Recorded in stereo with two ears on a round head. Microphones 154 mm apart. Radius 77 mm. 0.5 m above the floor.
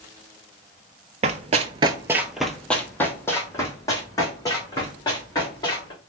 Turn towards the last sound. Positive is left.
turn(degrees=25)  # may be behind; listen again after turning